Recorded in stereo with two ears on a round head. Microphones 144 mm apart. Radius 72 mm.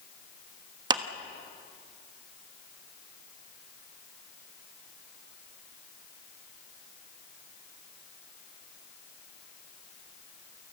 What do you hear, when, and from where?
0.9 s a clap: 25° right (ahead or behind), 1.3 m